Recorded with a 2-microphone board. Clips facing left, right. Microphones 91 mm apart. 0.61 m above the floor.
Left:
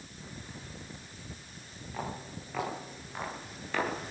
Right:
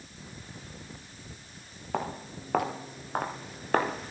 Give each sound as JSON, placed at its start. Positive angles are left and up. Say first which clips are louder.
{"t": 1.9, "sound": "footsteps", "louder": "right 6 dB", "side_deg": -60, "distance_m": 6.5}